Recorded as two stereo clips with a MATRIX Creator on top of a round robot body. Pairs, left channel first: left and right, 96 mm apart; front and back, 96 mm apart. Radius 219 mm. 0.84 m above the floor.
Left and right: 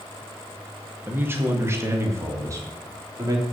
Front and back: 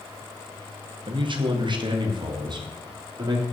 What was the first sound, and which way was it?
A man speaking, 155° right.